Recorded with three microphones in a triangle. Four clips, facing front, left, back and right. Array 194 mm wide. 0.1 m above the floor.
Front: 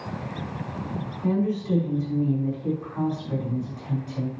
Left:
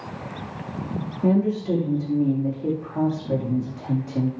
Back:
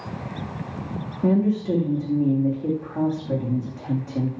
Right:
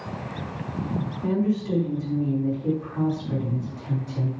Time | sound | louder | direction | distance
1.2 | a woman speaking | left 4 dB, back 4 dB | 145° left | 6.5 m